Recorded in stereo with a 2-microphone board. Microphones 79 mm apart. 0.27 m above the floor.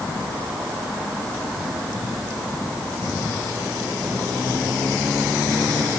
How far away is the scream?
No scream in this recording.